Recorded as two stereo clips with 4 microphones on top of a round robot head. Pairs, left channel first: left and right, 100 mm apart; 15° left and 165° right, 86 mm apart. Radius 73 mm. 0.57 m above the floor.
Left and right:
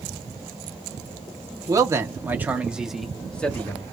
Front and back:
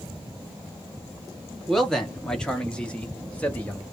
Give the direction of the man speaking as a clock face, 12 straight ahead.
2 o'clock.